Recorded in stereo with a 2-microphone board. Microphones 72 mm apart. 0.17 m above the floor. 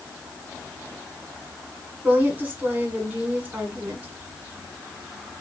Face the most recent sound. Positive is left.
turn(degrees=-25)  # may be behind; listen again after turning